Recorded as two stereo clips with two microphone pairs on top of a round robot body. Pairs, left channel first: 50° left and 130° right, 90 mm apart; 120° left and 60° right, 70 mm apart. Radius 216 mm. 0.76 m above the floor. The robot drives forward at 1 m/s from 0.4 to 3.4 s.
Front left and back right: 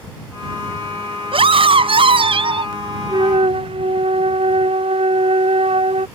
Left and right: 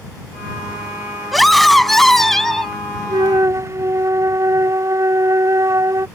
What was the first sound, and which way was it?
A scream, 150° right.